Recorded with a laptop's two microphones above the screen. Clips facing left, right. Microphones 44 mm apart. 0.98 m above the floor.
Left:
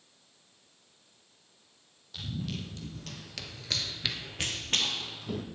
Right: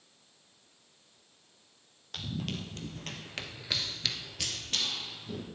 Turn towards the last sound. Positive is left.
turn(degrees=60)  # may be behind; listen again after turning